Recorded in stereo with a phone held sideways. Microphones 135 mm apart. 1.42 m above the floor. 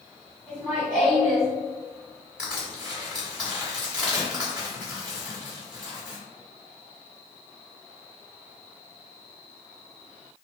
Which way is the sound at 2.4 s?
10° right (ahead or behind).